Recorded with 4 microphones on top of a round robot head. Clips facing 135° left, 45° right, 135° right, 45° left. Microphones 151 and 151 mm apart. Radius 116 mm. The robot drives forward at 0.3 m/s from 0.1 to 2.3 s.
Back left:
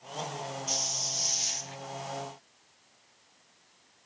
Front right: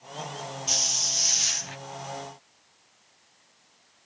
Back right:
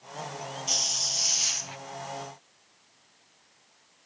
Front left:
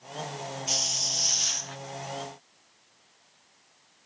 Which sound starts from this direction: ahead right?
A hiss, at 0.7 s.